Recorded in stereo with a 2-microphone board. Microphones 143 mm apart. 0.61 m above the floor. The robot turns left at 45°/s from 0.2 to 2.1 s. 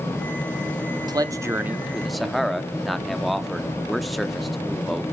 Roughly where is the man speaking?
Behind right.